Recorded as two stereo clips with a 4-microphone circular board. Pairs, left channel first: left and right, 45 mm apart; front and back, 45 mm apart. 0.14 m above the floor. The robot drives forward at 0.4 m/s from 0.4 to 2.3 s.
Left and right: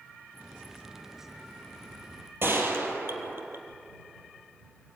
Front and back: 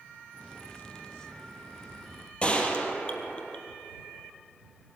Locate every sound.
2.4 s a gunshot: 60° right, 3 m